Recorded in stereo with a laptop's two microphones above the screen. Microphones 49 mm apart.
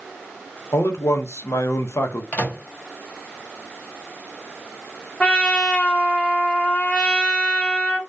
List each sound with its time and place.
0.7 s a man speaking: 60° left (ahead or behind), 0.5 m
2.3 s a microwave: 35° left (ahead or behind), 0.6 m
5.2 s a trumpet: 25° left (ahead or behind), 1.0 m